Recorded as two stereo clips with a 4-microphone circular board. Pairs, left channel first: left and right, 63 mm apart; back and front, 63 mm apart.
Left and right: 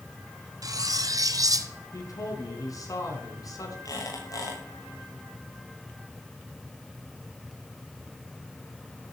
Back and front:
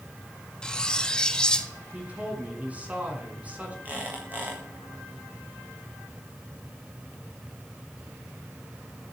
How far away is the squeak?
About 6.5 m.